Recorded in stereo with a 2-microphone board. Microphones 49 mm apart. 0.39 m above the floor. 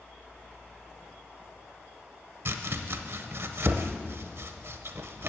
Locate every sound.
2.5 s chopping: 60° right (ahead or behind), 0.6 m